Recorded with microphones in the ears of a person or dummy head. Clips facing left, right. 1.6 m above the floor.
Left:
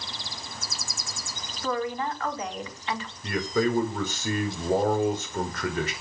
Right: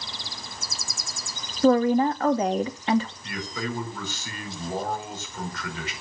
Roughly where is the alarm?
No alarm in this recording.